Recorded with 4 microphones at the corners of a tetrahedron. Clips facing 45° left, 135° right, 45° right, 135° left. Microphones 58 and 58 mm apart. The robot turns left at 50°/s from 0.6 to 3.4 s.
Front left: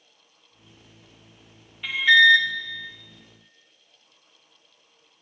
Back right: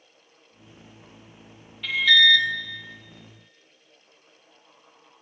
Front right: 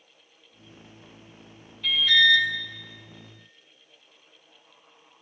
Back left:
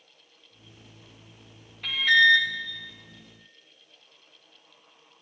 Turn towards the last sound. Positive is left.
turn(degrees=40)